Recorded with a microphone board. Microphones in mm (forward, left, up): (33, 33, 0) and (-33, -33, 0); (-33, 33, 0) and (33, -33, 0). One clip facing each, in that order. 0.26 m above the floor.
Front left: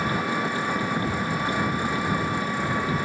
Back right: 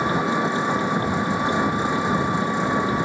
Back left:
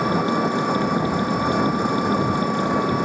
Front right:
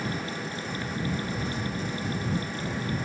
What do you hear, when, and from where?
0.0 s an engine running: 155° left